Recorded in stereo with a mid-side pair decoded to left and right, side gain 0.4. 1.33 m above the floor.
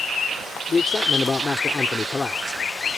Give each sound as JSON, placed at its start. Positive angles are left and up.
{"t": 0.7, "sound": "a man speaking", "azimuth_deg": 35}